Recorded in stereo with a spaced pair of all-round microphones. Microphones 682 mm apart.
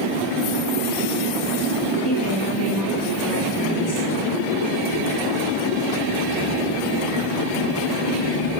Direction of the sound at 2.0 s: 25° left (ahead or behind).